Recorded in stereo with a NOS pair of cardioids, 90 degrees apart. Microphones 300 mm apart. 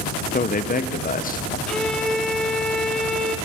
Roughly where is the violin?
Ahead.